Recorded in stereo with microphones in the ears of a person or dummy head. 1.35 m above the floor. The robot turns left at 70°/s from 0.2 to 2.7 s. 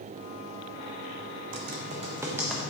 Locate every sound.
1.5 s typing on a keyboard: 70° right (ahead or behind), 1.0 m; by 2.6 s centre (ahead or behind), 1.0 m